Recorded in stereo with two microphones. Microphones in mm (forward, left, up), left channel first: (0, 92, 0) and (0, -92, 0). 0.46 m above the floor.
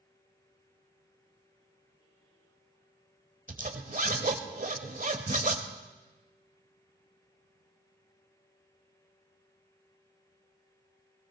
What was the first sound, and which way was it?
A zipper, 50° right (ahead or behind).